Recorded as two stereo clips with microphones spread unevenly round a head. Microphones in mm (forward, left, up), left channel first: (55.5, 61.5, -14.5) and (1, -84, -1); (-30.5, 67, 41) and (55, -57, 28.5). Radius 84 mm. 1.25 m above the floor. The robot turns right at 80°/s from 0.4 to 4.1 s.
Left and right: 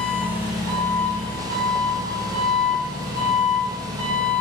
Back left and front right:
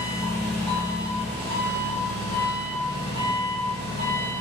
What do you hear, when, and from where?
0.0 s an engine running: 10° left, 1.9 m; by 4.4 s 50° right, 1.9 m